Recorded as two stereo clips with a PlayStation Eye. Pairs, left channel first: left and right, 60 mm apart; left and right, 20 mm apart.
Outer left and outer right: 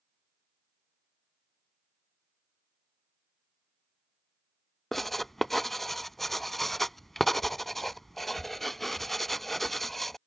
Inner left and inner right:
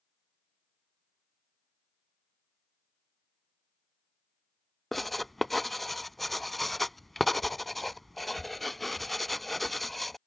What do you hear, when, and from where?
4.9 s writing: 5° left (ahead or behind)